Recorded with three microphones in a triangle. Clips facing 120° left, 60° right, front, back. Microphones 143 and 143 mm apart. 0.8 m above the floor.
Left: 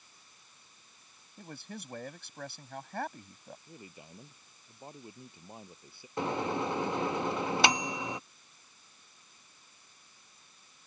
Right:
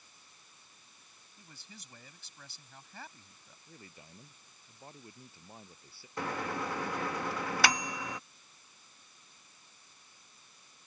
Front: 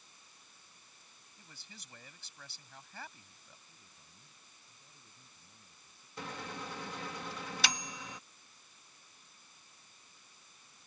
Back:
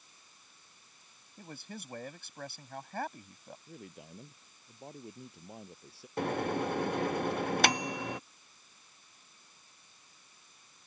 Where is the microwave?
175° right.